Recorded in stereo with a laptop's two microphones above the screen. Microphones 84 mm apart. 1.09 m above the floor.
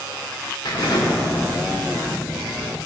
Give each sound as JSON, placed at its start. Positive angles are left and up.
{"t": 0.7, "sound": "an explosion", "side_deg": 55, "distance_m": 2.0}